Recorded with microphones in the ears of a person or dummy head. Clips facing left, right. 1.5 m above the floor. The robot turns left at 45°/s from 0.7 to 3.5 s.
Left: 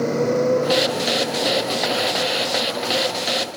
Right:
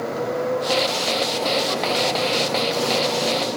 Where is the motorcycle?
40° left; by 3.6 s 85° right.